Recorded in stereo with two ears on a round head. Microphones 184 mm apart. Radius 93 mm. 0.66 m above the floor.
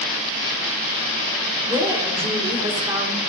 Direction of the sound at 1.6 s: 20° right (ahead or behind).